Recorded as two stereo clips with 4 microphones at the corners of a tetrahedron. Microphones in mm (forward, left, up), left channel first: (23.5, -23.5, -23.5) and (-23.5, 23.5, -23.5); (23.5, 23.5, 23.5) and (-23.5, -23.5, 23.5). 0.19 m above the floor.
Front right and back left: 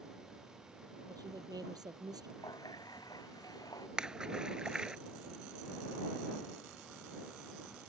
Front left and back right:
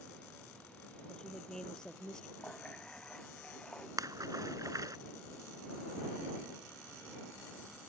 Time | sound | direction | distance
1.1 | a woman speaking | 125° left | ?
2.4 | a running tap | 30° right | ?
4.0 | a splash | 150° right | ?